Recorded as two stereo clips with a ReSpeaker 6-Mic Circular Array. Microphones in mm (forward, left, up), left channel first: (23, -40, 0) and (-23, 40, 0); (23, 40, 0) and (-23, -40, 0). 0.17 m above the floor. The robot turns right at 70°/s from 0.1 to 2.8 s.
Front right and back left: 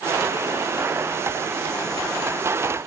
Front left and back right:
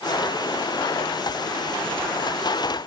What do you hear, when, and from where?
Only background noise.